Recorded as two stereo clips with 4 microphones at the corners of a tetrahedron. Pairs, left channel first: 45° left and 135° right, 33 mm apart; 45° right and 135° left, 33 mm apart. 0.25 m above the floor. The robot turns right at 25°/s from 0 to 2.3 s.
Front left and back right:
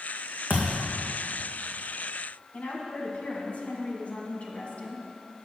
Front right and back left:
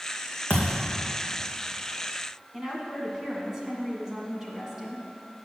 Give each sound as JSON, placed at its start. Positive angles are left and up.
{"t": 0.5, "sound": "a thud", "azimuth_deg": 20, "distance_m": 2.0}
{"t": 2.5, "sound": "a woman speaking", "azimuth_deg": 70, "distance_m": 1.9}